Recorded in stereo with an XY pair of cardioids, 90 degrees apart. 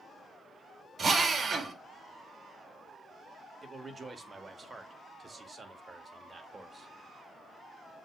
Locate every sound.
1.0 s a drill: 50° right, 2.5 m
3.6 s a man speaking: 30° right, 2.5 m